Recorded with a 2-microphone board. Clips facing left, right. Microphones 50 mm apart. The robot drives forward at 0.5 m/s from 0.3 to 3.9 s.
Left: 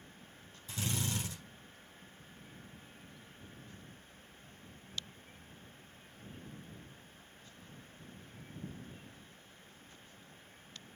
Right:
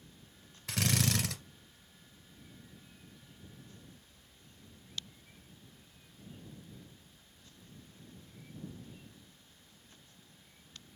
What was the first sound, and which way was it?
A drill, 75° right (ahead or behind).